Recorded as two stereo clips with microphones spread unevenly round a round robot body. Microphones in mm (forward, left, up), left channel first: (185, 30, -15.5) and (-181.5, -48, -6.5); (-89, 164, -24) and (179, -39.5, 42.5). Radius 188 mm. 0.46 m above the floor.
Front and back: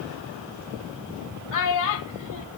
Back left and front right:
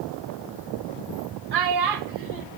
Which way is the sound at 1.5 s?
25° right.